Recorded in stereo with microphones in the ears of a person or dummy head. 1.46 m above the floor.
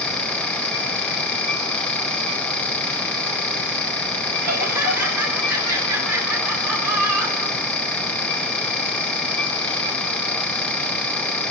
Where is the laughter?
15° right (ahead or behind), 5 m.